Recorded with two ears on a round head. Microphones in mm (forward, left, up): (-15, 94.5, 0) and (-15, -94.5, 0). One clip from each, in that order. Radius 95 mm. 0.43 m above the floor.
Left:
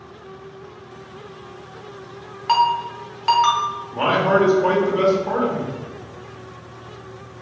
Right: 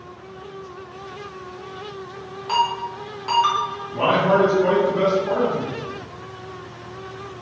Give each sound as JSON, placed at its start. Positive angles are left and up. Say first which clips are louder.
{"t": 2.5, "sound": "a ringtone", "louder": "left 4 dB", "side_deg": 50, "distance_m": 0.9}
{"t": 3.9, "sound": "a man speaking", "louder": "even", "side_deg": 30, "distance_m": 0.9}